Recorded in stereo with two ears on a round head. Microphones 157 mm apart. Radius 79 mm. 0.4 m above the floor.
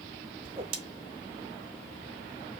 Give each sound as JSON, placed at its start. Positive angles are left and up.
{"t": 0.4, "sound": "a whoosh", "side_deg": -30, "distance_m": 0.8}